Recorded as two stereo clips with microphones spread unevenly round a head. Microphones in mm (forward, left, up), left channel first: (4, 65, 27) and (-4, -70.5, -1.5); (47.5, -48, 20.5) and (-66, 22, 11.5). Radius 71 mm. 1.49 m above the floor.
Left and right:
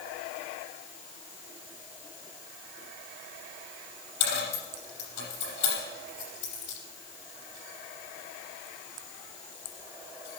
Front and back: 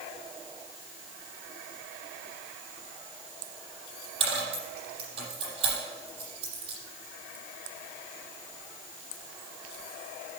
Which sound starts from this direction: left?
A dropped coin, at 4.2 s.